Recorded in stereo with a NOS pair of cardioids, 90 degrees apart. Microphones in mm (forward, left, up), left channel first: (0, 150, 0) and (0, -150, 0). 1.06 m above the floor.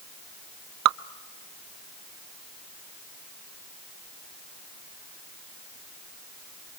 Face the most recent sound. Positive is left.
turn(degrees=-65)